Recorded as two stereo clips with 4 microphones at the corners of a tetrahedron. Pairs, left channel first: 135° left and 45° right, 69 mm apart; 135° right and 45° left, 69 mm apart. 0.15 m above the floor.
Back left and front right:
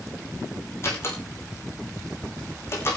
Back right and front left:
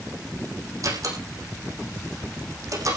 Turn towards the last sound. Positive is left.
turn(degrees=85)